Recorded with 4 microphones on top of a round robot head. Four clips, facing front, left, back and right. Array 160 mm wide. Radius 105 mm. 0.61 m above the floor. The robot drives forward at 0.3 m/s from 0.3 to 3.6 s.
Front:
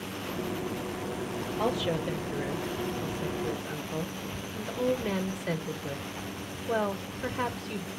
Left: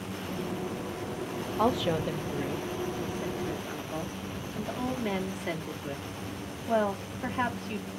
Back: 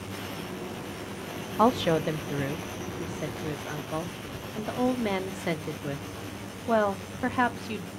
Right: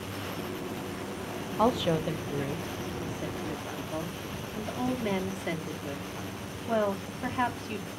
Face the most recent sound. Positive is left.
turn(degrees=-175)